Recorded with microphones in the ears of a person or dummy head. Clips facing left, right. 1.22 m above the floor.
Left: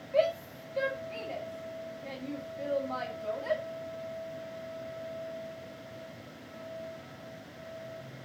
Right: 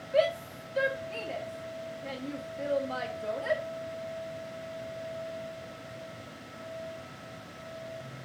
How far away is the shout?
About 2 m.